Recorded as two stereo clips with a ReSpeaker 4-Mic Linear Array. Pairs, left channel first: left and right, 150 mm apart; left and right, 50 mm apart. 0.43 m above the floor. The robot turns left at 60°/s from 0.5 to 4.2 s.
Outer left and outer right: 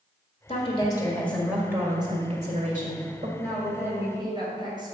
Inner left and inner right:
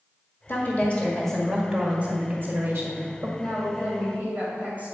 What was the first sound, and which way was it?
A woman speaking, 55° left.